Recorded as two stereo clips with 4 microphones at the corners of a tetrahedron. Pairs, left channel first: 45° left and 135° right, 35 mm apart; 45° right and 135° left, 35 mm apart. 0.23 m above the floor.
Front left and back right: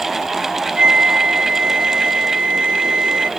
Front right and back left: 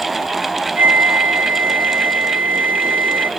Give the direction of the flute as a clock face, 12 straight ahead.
7 o'clock.